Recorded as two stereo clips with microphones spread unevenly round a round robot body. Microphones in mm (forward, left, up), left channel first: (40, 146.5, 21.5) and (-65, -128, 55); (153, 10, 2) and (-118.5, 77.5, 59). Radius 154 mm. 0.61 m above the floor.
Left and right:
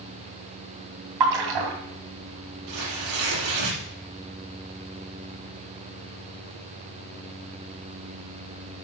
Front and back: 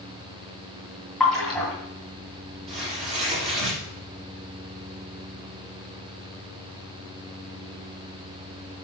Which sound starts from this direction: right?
A splash, at 1.2 s.